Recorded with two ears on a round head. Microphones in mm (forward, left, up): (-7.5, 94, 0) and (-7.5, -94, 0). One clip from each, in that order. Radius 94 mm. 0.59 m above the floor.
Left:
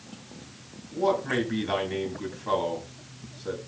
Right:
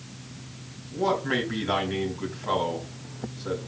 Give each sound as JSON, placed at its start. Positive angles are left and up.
{"t": 0.9, "sound": "a man speaking", "side_deg": 5, "distance_m": 4.0}